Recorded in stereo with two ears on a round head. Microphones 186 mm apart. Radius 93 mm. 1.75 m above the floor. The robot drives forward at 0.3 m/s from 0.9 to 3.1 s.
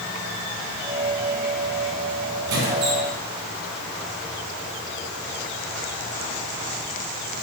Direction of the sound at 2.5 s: 65° right (ahead or behind).